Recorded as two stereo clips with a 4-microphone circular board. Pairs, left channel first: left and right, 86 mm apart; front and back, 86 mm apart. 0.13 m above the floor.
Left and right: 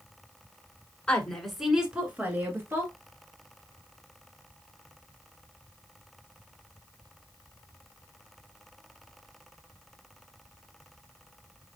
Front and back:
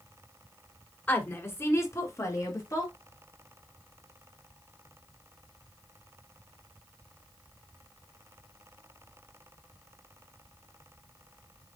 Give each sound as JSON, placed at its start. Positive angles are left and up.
{"t": 1.1, "sound": "a woman speaking", "azimuth_deg": 30, "distance_m": 1.3}